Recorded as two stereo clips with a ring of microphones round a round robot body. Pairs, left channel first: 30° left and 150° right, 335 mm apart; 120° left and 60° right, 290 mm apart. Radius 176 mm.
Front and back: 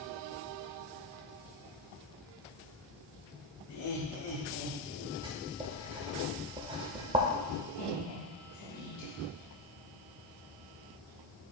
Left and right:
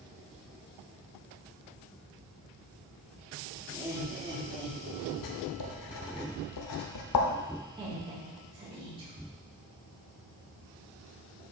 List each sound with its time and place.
3.7 s laughter: 20° left, 3 m; by 5.1 s straight ahead, 3 m
5.2 s writing: 135° left, 0.8 m
7.8 s a woman speaking: 10° left, 3 m